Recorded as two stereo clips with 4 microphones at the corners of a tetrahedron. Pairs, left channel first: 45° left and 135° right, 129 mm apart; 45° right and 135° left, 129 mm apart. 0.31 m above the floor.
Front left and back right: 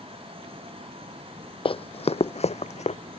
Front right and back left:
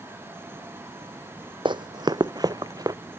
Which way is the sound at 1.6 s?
85° left.